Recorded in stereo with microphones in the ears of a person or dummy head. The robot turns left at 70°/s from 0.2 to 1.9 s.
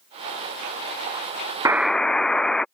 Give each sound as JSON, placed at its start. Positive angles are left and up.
{"t": 1.6, "sound": "a buzzer", "side_deg": -15}